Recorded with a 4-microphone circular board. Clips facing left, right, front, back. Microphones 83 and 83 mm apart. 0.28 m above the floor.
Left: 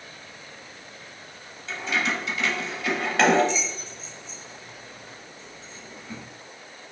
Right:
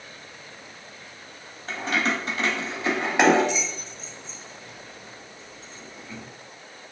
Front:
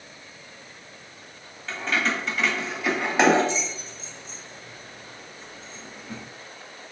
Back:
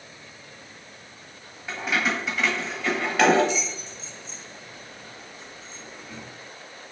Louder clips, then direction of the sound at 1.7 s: Right 2 dB, even; 110° right.